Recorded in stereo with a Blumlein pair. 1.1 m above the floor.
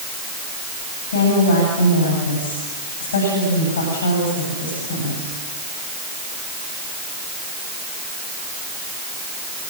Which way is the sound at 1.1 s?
65° left.